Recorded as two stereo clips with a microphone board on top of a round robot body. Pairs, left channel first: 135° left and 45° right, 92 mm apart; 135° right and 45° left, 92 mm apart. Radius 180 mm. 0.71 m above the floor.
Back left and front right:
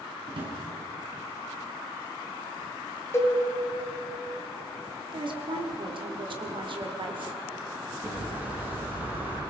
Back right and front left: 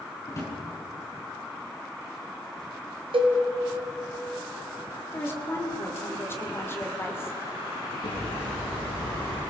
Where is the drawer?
80° right, 5 m.